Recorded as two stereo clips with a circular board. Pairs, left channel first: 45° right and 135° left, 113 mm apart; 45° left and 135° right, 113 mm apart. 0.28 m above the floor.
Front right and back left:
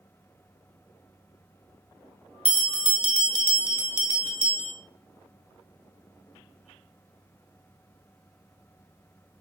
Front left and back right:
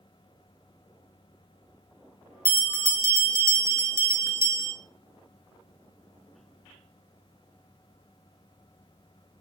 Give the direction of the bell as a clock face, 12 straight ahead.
2 o'clock.